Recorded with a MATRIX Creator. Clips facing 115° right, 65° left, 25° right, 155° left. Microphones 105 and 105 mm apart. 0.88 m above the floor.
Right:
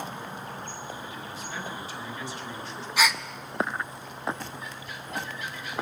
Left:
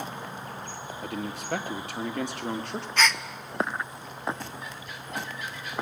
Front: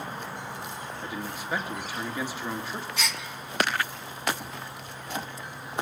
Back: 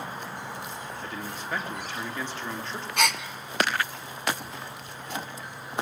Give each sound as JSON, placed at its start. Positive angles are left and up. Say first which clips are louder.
{"t": 1.0, "sound": "a man speaking", "louder": "left 4 dB, front 1 dB", "azimuth_deg": 55, "distance_m": 2.5}
{"t": 3.0, "sound": "a gasp", "louder": "even, back 10 dB", "azimuth_deg": 170, "distance_m": 0.7}